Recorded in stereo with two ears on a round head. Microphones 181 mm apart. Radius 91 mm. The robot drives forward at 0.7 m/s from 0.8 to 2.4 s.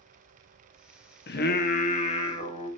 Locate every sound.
1.3 s singing: 50° left (ahead or behind), 0.7 m; by 2.7 s 25° left (ahead or behind), 1.2 m